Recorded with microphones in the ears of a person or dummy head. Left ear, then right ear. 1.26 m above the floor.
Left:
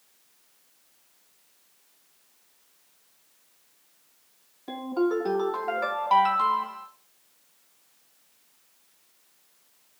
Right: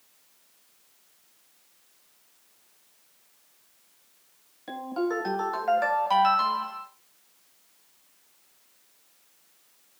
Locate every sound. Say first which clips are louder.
4.7 s a ringtone: left 3 dB; 70° right (ahead or behind), 3.5 m